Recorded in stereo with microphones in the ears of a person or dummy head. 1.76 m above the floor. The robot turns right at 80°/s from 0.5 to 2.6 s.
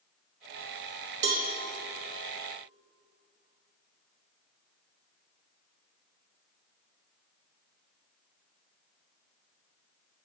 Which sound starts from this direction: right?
A cowbell, at 1.2 s.